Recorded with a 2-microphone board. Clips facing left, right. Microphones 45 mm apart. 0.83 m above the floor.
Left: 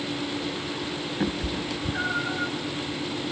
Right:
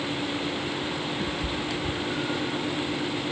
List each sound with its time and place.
1.2 s a cat meowing: 35° left (ahead or behind), 0.7 m; by 2.5 s 75° left (ahead or behind), 1.8 m